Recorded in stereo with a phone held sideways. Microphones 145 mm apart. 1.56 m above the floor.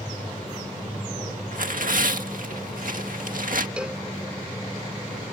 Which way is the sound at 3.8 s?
5° right (ahead or behind).